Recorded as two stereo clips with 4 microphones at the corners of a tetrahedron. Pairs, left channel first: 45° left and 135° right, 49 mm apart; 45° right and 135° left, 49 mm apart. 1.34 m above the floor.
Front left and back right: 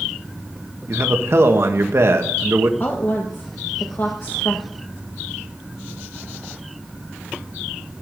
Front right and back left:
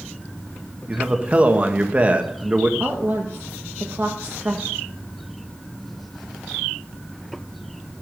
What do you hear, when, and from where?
0.9 s a man speaking: 165° right, 1.5 m
2.8 s a woman speaking: 85° left, 1.3 m